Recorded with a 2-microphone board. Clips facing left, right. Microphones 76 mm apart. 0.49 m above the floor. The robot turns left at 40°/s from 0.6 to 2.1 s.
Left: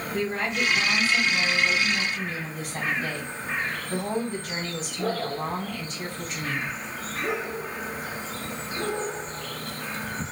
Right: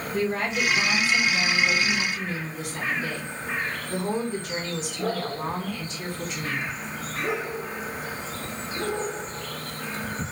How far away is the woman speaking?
About 2.5 m.